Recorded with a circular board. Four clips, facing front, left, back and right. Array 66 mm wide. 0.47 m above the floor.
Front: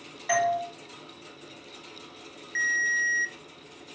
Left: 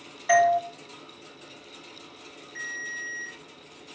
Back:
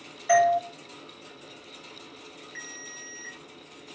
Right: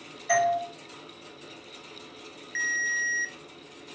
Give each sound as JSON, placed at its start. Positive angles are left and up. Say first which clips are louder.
{"t": 0.3, "sound": "a doorbell", "louder": "left 4 dB, back 5 dB", "azimuth_deg": 55, "distance_m": 2.5}
{"t": 2.5, "sound": "a ringtone", "louder": "right 7 dB, front 20 dB", "azimuth_deg": -50, "distance_m": 0.8}